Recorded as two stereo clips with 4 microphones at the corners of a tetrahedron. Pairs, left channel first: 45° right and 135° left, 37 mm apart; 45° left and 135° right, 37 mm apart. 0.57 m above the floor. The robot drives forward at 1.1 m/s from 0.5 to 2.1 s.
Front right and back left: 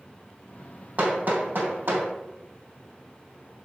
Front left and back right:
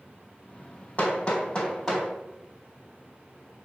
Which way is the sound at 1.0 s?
90° left.